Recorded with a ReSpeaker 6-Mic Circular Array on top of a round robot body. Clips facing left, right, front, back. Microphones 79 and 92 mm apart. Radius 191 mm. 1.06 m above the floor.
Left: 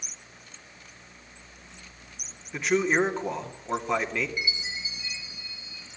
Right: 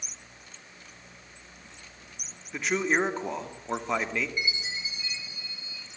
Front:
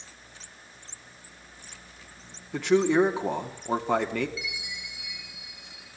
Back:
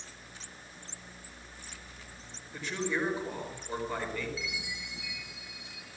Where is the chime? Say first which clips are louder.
Right 1 dB, front 1 dB; 10° left, 7.5 m.